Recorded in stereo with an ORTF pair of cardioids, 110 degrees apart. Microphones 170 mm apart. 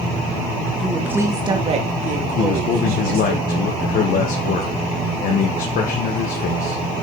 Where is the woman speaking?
Straight ahead, 1.9 m; by 3.4 s 70° right, 4 m.